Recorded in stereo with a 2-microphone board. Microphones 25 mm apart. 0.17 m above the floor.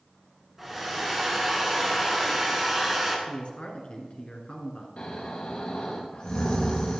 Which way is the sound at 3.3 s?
50° left (ahead or behind).